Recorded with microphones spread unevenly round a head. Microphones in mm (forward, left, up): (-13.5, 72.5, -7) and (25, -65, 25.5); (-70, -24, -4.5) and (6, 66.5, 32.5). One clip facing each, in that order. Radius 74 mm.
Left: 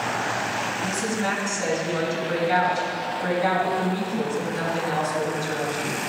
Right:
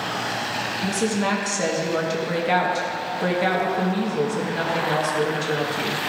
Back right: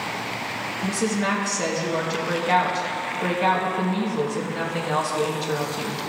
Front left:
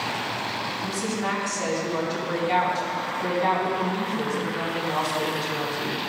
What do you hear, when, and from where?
0.8 s a woman speaking: 90° right, 1.5 m